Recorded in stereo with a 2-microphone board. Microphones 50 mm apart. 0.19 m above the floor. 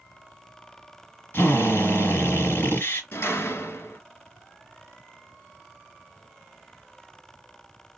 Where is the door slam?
60° left (ahead or behind), 1.5 m.